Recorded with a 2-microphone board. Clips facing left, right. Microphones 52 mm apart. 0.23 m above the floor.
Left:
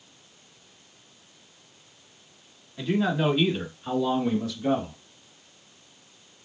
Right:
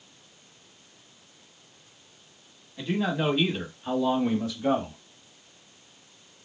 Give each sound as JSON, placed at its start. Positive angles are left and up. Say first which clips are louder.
{"t": 2.8, "sound": "a man speaking", "louder": "left 2 dB", "side_deg": 0, "distance_m": 1.5}